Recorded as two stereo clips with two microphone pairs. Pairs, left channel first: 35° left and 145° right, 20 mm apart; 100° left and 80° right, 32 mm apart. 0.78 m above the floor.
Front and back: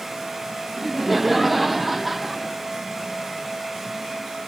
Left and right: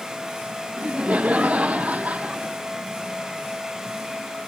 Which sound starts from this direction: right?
Laughter, at 0.8 s.